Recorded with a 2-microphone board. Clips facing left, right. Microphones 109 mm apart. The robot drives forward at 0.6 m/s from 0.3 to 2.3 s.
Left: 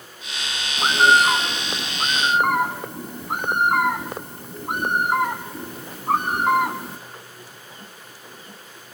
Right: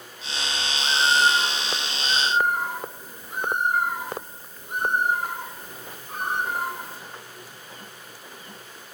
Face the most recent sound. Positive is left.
turn(degrees=80)